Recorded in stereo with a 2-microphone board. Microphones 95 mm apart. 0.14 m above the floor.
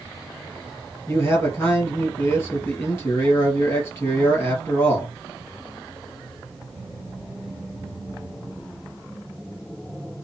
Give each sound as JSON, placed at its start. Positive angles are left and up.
{"t": 1.1, "sound": "a man speaking", "side_deg": 30, "distance_m": 2.5}